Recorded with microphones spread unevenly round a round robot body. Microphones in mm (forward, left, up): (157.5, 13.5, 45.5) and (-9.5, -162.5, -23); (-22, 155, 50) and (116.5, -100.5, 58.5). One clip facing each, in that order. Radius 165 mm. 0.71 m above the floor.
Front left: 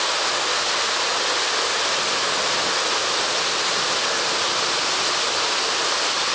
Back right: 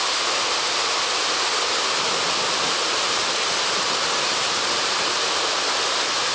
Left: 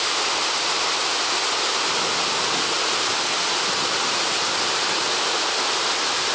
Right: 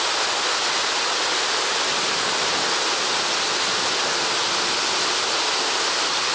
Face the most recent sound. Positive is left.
No sound to turn to.